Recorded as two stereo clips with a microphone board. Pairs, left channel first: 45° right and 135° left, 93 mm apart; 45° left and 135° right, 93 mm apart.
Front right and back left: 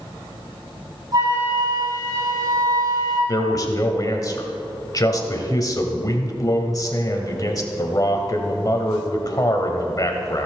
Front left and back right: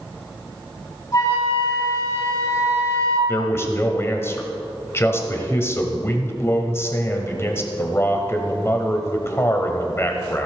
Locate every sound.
1.1 s a flute: 95° left, 3 m
3.3 s a man speaking: 10° right, 1.4 m